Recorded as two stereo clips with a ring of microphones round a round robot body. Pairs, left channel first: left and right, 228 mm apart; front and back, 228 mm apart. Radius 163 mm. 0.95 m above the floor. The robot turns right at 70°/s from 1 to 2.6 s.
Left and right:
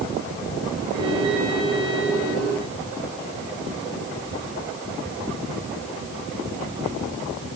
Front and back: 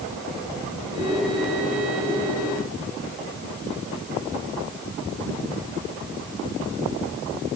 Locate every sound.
Only background noise.